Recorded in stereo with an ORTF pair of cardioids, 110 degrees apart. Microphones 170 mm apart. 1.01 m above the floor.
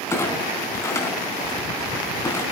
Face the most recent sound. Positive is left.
turn(degrees=15)